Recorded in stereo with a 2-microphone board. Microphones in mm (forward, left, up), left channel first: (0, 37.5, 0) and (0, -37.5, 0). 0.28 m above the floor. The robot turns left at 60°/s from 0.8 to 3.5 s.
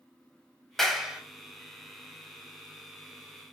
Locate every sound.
0.8 s a clap: 5° left (ahead or behind), 1.7 m; by 1.2 s 15° right (ahead or behind), 1.7 m